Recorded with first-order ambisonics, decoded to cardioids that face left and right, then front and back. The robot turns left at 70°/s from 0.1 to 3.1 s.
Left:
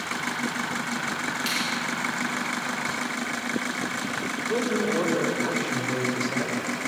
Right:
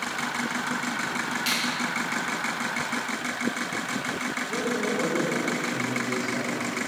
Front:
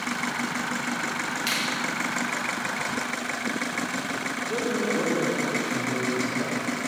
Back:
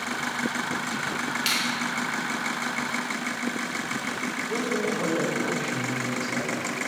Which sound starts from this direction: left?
A man speaking, at 4.4 s.